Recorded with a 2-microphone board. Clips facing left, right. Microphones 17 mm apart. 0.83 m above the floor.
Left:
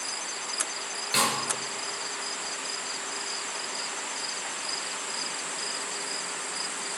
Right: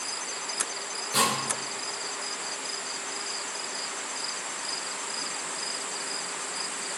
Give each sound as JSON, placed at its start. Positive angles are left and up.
{"t": 1.1, "sound": "a snare drum", "side_deg": 35, "distance_m": 4.0}